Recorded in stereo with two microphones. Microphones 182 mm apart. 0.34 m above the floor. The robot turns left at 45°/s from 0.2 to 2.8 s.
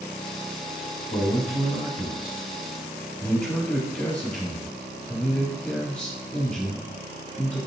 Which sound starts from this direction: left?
A man speaking, at 1.1 s.